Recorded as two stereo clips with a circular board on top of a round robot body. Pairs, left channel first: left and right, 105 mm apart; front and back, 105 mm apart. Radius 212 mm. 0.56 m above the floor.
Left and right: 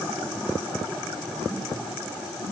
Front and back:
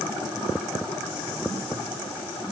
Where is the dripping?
No dripping in this recording.